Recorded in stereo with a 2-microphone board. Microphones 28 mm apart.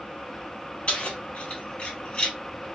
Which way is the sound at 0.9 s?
45° left (ahead or behind).